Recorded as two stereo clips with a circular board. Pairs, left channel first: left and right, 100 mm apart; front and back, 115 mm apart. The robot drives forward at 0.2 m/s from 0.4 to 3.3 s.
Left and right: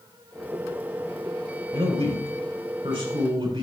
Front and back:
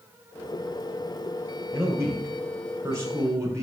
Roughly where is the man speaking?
Behind right.